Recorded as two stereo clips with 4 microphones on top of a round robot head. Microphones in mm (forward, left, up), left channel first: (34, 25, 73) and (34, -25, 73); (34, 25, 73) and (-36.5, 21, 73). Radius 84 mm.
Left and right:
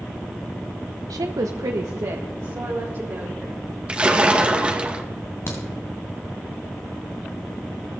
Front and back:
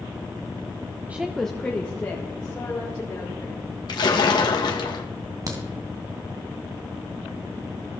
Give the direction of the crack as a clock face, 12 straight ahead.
7 o'clock.